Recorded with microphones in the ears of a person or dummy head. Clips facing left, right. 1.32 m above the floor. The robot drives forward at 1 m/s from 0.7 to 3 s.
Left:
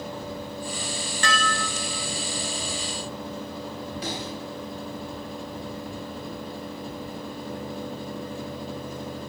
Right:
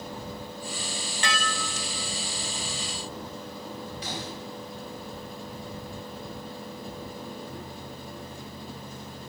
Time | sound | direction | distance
1.2 | dishes clattering | 15° right (ahead or behind) | 1.7 m
4.0 | a snare drum | 65° left (ahead or behind) | 9.5 m